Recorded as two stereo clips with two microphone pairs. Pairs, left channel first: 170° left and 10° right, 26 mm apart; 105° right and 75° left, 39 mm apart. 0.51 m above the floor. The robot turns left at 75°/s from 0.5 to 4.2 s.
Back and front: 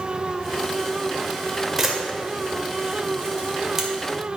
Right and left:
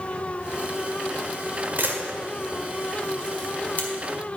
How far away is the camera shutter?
About 1.8 m.